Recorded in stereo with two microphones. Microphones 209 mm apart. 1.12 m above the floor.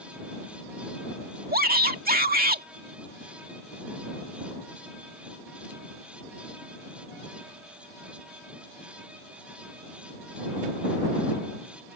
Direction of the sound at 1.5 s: 45° right (ahead or behind).